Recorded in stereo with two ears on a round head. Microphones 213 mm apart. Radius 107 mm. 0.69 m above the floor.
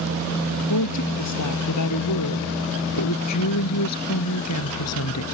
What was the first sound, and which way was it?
A woman speaking, 85° left.